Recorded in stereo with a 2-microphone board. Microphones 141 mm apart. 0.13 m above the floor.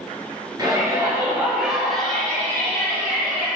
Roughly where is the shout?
Right.